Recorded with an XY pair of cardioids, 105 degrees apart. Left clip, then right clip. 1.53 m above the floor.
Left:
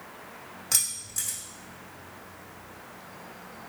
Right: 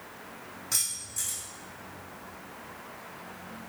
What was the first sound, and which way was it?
Keys jangling, 60° left.